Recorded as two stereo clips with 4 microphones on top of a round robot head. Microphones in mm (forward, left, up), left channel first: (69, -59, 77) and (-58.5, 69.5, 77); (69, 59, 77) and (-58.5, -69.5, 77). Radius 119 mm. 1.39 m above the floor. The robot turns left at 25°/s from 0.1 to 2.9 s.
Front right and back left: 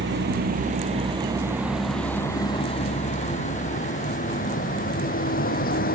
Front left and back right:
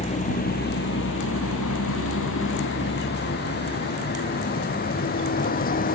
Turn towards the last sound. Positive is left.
turn(degrees=0)